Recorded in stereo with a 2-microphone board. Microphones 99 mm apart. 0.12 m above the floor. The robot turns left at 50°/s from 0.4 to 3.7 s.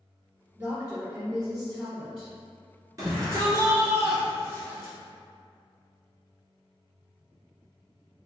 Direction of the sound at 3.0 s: 90° right.